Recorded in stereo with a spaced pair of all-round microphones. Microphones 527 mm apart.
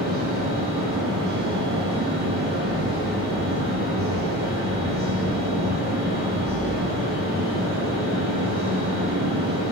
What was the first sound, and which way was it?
A fan, 20° right (ahead or behind).